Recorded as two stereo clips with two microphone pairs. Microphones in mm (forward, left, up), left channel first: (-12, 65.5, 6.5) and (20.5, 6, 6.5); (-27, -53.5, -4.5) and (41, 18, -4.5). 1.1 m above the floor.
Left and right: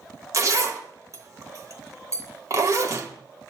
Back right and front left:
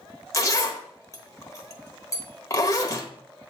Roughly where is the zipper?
Right.